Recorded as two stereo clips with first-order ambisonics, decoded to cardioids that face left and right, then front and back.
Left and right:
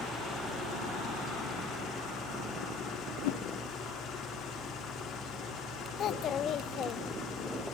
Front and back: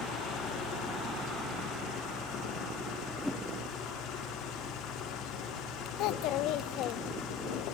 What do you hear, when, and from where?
0.0 s an engine running: 40° left, 3 m
3.2 s a whoosh: 90° left, 1.2 m
6.0 s a child speaking: 35° left, 1.4 m